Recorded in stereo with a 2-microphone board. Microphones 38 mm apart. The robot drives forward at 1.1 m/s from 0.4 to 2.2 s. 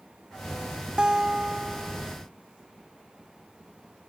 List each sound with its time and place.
1.0 s a guitar: 25° right (ahead or behind); by 2.1 s 15° right (ahead or behind)